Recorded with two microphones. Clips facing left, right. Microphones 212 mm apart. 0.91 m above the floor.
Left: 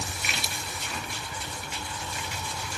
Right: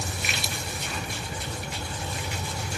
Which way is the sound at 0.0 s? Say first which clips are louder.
Right 3 dB; 45° right (ahead or behind).